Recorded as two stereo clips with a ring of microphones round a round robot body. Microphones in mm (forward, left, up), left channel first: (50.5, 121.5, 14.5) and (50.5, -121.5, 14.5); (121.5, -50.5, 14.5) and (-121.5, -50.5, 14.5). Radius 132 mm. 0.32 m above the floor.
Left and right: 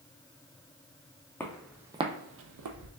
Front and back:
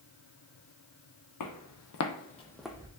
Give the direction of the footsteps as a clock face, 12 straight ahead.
12 o'clock.